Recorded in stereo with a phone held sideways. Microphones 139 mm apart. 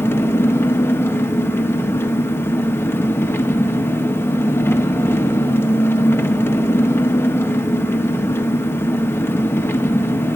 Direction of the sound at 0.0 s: 15° left (ahead or behind).